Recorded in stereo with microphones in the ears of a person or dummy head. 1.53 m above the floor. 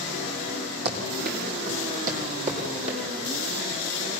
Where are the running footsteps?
60° right (ahead or behind), 4 m; by 3.0 s 35° right (ahead or behind), 4 m.